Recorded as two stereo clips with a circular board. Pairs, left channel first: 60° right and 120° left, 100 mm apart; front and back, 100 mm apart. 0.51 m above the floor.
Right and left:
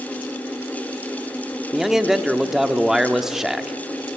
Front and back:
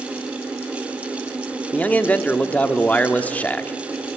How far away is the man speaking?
About 0.9 m.